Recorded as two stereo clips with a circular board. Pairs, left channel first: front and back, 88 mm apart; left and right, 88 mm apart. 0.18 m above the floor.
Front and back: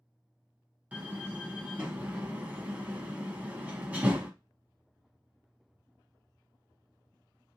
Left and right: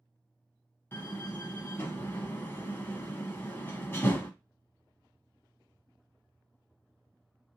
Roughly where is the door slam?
Behind left.